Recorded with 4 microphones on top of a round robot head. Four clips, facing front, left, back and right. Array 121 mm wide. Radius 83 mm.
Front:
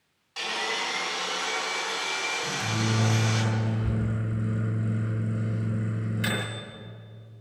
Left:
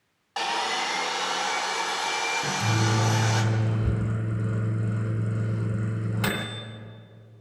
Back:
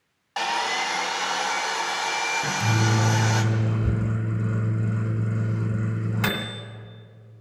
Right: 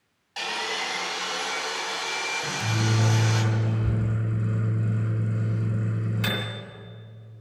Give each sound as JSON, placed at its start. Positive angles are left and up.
{"t": 0.4, "sound": "sawing", "azimuth_deg": 135, "distance_m": 2.5}
{"t": 2.4, "sound": "a microwave", "azimuth_deg": 140, "distance_m": 2.5}